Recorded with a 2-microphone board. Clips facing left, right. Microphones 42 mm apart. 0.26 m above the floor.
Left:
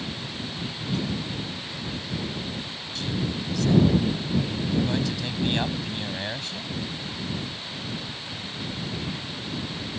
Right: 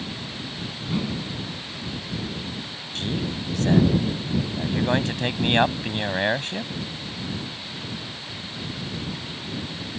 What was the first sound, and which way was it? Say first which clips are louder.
A whoosh: right 2 dB; 20° right (ahead or behind).